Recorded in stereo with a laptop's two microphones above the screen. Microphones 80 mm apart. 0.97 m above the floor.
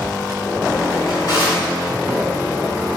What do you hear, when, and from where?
1.1 s a drawer: 50° left (ahead or behind), 3 m